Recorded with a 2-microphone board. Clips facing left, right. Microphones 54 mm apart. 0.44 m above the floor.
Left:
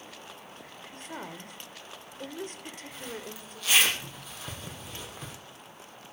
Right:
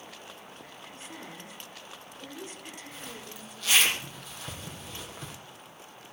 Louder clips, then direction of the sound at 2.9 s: Left 3 dB; 5° left (ahead or behind).